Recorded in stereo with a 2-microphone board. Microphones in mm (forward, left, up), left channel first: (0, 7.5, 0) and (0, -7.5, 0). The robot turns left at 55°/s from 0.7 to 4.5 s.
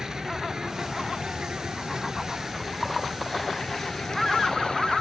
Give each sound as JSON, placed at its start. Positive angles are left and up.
{"t": 0.0, "sound": "an insect", "azimuth_deg": -55}